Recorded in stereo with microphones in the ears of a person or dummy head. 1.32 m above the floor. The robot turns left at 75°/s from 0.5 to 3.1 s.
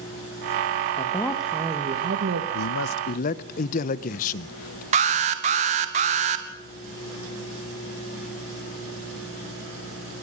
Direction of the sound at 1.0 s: 30° left.